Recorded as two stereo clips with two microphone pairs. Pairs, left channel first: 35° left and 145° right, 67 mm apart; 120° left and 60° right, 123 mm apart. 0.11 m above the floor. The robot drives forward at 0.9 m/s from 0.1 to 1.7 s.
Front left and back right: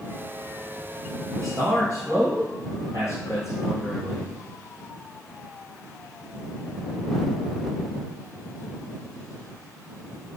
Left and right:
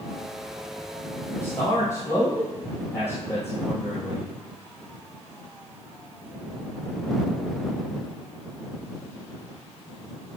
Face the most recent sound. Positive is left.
turn(degrees=175)